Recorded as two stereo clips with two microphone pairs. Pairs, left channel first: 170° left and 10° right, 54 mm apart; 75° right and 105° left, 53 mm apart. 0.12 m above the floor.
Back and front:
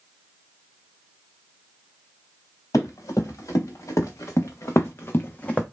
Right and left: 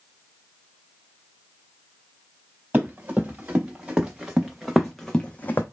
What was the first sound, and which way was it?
Running footsteps, 170° left.